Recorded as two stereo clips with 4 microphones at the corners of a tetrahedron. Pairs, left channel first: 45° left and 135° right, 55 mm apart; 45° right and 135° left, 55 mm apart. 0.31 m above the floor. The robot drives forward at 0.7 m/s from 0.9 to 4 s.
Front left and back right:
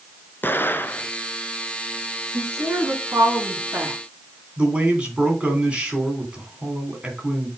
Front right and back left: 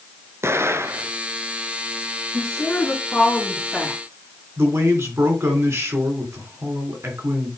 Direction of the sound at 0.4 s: 95° left.